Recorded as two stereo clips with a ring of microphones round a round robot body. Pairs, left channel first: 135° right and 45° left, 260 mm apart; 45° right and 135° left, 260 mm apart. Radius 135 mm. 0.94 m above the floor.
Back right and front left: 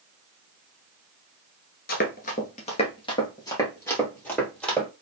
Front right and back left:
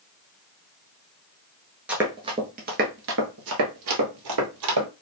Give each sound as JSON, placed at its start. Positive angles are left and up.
{"t": 1.9, "sound": "running footsteps", "azimuth_deg": -145, "distance_m": 1.0}